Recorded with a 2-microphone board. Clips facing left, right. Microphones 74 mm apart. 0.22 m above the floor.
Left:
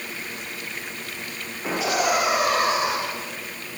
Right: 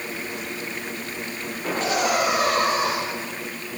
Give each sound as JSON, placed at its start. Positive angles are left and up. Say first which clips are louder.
{"t": 1.6, "sound": "laughter", "louder": "even", "side_deg": 5, "distance_m": 8.5}